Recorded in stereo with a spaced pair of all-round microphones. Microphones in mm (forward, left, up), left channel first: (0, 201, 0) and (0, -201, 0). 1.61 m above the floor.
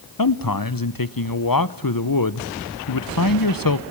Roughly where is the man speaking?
Left.